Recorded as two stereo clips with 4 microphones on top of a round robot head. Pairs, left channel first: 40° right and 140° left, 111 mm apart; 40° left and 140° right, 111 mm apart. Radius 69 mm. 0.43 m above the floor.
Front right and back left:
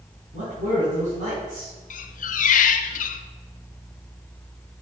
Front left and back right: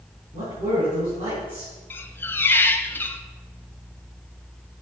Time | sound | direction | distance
0.3 | a man speaking | 170° left | 5.5 m
1.9 | a squeak | 35° right | 0.7 m